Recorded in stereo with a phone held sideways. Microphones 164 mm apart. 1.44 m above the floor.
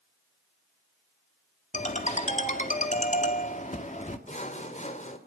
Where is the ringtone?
45° left (ahead or behind), 2 m.